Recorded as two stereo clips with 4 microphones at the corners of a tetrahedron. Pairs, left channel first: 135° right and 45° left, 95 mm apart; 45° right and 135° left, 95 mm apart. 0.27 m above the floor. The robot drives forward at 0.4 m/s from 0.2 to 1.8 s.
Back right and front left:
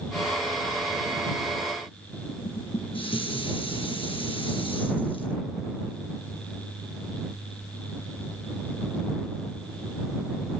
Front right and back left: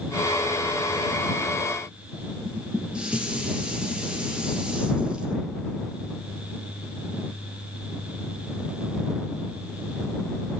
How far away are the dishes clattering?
About 2.5 m.